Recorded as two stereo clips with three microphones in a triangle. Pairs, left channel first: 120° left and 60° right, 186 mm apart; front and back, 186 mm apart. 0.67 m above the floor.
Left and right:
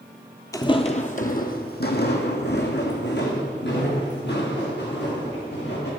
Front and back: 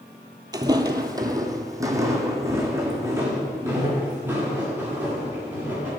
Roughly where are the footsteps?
Behind left.